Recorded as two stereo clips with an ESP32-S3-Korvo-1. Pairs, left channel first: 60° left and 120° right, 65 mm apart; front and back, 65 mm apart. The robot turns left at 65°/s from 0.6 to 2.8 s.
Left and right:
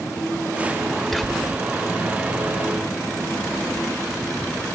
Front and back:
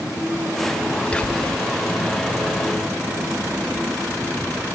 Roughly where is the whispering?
Ahead.